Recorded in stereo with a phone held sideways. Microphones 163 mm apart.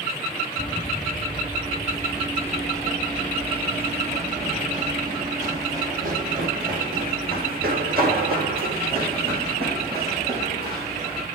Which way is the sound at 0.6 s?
30° left (ahead or behind).